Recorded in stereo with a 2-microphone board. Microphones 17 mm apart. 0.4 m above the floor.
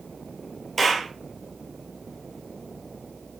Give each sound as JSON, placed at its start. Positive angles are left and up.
{"t": 0.8, "sound": "a clap", "side_deg": 10, "distance_m": 6.5}